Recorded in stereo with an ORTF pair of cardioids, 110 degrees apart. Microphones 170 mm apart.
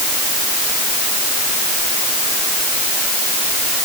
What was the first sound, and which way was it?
Only background noise.